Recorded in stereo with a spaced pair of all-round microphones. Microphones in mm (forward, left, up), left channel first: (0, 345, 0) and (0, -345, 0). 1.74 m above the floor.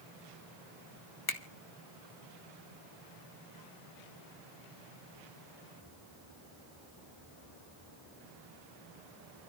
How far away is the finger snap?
About 1.4 m.